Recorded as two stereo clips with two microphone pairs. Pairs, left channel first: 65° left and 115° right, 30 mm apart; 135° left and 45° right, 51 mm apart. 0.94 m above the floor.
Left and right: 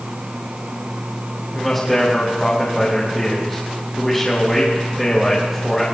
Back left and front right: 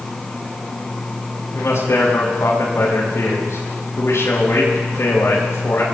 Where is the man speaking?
150° left, 6 m.